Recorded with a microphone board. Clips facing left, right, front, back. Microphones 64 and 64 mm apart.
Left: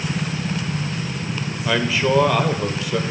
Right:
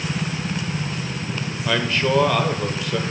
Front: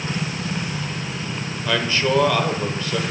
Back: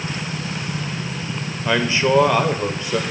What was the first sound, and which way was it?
A man speaking, 165° left.